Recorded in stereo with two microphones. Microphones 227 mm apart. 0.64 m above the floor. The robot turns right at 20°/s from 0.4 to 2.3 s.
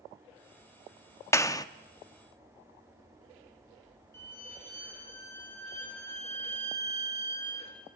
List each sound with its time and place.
1.3 s a clap: 10° left (ahead or behind), 0.7 m; by 1.6 s 15° left (ahead or behind), 0.7 m
4.1 s a violin: 10° left (ahead or behind), 6 m